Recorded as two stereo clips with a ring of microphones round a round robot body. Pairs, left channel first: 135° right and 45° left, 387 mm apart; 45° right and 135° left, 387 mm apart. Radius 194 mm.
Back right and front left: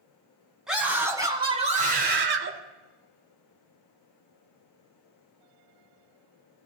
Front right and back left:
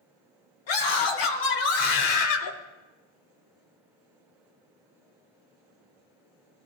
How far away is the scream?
About 4.5 m.